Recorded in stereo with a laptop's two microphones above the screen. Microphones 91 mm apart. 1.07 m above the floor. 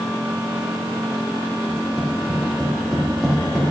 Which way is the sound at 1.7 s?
10° left (ahead or behind).